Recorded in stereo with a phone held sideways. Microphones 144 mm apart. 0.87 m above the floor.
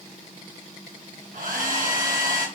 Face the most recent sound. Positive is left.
turn(degrees=-75)  # may be behind; listen again after turning